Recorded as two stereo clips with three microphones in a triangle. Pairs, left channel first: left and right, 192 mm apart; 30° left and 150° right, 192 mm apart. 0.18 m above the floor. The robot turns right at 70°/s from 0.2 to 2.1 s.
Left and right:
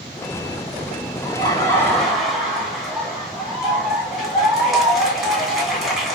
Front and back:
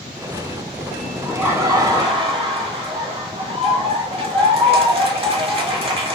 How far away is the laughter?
About 1.7 m.